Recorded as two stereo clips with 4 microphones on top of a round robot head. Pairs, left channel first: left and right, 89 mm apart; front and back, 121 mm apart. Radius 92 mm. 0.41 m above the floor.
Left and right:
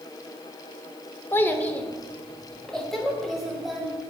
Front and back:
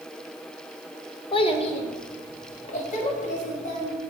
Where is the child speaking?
30° left, 0.9 m; by 4.0 s 5° right, 2 m.